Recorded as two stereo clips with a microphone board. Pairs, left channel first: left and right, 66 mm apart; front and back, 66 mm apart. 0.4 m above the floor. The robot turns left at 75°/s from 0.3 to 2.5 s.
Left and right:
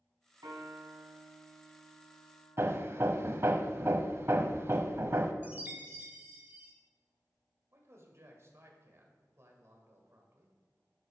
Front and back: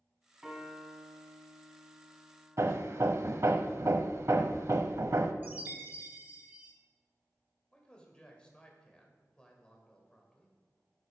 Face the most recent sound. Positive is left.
turn(degrees=-70)